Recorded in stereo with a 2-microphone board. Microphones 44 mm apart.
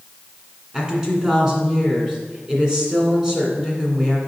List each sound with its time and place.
0.7 s a woman speaking: 20° right (ahead or behind), 1.7 m